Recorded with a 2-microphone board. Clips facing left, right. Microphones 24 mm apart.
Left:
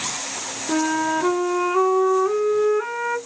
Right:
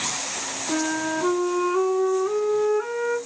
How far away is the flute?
About 0.5 m.